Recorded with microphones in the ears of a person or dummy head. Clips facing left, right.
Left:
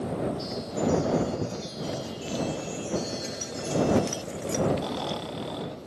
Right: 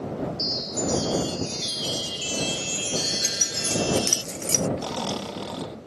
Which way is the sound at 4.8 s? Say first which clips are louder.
Right 1 dB; 50° right (ahead or behind).